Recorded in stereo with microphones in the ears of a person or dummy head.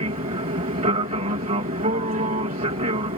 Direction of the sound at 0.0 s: 35° right (ahead or behind).